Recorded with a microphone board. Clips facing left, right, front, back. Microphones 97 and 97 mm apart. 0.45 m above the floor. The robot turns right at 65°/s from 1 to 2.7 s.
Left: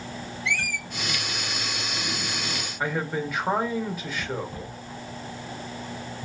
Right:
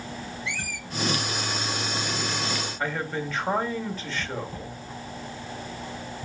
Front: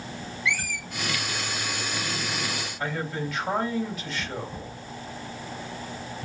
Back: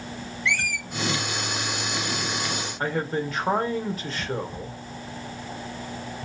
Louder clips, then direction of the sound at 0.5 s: Left 4 dB, back 2 dB; 85° left.